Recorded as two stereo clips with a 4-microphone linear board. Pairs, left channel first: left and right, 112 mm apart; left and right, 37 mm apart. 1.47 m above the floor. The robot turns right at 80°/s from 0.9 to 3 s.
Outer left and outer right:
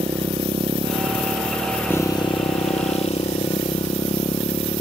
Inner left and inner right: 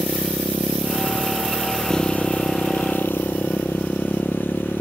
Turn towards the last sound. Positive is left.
turn(degrees=105)